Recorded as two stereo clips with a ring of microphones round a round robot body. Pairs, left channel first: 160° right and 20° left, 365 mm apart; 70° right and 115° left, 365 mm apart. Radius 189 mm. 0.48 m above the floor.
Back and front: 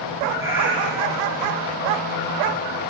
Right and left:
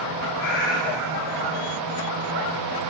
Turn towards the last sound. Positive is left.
turn(degrees=-75)